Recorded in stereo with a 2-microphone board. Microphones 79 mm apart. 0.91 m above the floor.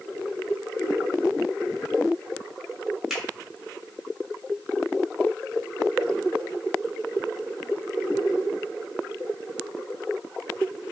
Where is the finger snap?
5° right (ahead or behind), 1.9 m.